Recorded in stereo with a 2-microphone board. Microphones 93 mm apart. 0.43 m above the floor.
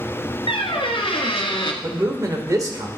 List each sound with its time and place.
0.5 s a squeak: 80° left, 1.3 m
1.8 s a man speaking: 40° right (ahead or behind), 1.6 m